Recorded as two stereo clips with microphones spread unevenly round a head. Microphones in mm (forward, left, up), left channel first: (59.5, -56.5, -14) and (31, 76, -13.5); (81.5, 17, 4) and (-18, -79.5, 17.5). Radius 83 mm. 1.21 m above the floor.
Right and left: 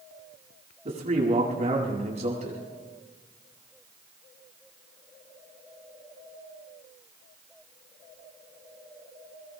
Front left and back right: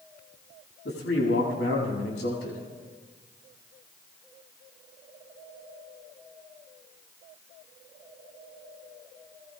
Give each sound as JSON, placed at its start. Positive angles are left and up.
{"t": 0.8, "sound": "a man speaking", "azimuth_deg": 65, "distance_m": 7.5}